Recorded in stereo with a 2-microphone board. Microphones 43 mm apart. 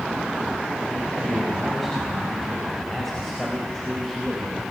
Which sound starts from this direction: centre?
A man speaking, at 1.1 s.